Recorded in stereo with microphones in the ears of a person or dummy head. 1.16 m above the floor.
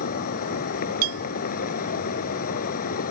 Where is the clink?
55° right (ahead or behind).